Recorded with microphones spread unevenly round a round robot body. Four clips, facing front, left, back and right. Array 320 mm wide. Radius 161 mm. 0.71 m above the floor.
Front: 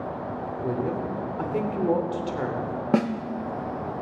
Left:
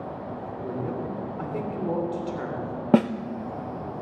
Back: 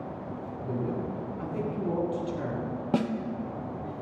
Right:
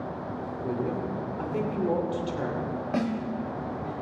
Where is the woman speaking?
5° right, 3 m.